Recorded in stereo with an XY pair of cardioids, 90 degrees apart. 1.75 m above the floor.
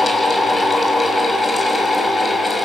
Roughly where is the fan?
Ahead left.